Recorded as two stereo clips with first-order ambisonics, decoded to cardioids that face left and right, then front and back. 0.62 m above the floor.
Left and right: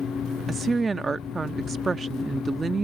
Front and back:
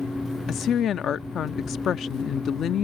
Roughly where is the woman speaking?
Ahead right.